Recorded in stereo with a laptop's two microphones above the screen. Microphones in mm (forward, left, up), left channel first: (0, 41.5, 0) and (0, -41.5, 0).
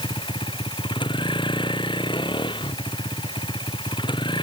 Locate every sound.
0.0 s a vehicle: 75° left (ahead or behind); by 4.5 s 70° left (ahead or behind)